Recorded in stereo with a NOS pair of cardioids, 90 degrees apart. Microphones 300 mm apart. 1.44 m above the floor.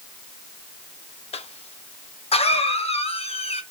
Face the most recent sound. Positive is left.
turn(degrees=20)